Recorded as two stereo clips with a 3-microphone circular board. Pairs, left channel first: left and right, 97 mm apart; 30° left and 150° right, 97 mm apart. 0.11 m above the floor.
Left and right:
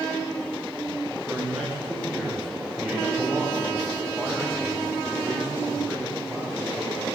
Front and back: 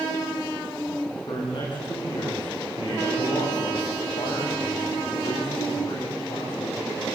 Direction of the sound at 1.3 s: 5° right.